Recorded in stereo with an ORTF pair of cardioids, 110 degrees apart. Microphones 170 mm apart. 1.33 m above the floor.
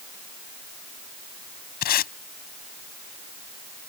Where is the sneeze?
No sneeze in this recording.